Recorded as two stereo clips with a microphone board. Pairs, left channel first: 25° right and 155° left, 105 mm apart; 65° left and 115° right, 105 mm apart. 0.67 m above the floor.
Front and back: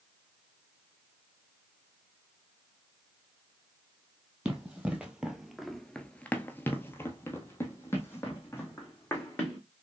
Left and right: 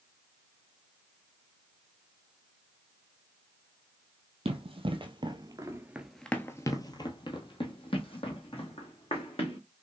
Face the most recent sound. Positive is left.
turn(degrees=45)